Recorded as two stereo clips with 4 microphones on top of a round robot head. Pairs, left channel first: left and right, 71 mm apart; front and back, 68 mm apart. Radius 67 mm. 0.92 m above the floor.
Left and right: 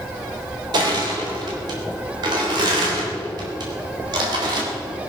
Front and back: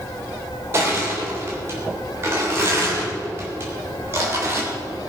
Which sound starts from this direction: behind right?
Crushing, at 0.7 s.